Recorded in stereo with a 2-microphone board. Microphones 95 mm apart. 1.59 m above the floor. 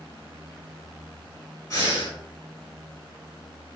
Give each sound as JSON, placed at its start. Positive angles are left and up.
{"t": 1.7, "sound": "breathing", "side_deg": 30, "distance_m": 2.0}